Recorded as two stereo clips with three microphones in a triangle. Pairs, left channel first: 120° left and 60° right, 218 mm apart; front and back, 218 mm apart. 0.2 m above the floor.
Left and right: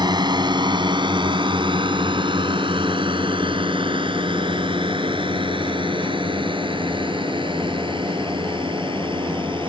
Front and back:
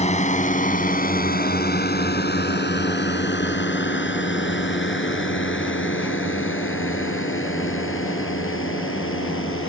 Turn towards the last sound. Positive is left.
turn(degrees=5)